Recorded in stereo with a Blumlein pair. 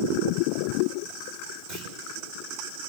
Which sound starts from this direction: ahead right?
A clunk, at 1.7 s.